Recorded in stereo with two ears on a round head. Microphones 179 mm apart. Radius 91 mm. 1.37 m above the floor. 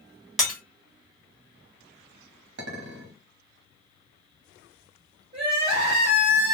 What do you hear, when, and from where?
0.4 s breaking glass: centre (ahead or behind), 1.7 m
2.6 s a clink: 55° right (ahead or behind), 1.0 m
5.3 s crying: 30° right (ahead or behind), 1.7 m